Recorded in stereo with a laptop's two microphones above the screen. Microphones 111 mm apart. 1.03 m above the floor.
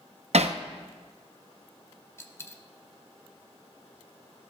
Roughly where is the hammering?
Right.